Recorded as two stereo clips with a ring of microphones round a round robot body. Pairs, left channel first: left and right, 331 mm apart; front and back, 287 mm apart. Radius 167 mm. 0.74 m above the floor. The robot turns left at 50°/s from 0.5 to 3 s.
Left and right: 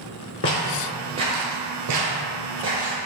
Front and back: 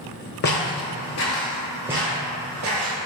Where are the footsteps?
45° left, 1.1 m; by 3.0 s 175° left, 1.4 m.